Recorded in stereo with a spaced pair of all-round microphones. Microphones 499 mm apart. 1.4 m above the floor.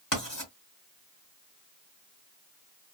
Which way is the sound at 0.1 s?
40° left (ahead or behind).